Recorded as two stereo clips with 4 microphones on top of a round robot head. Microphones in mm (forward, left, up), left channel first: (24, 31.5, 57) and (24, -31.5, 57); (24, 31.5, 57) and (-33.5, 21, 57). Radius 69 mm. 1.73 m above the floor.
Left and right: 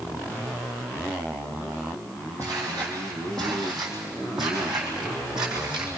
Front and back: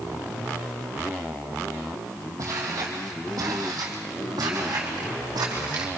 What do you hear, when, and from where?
2.4 s footsteps: 160° left, 3.5 m; by 5.9 s 170° right, 5.5 m